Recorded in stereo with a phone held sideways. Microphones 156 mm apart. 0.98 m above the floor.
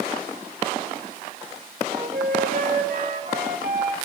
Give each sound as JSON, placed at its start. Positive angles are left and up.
{"t": 1.9, "sound": "a flute", "side_deg": -60, "distance_m": 1.8}